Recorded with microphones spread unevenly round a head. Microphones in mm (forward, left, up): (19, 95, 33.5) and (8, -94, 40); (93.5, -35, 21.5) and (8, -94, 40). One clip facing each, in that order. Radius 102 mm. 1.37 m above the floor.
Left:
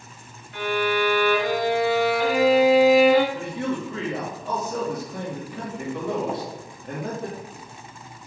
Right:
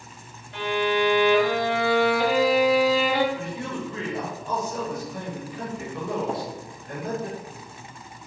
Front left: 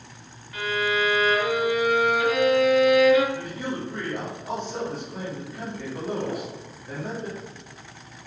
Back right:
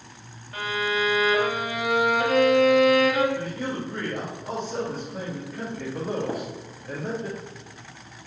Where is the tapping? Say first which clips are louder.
Even, back right 1 dB; 175° left, 0.7 m.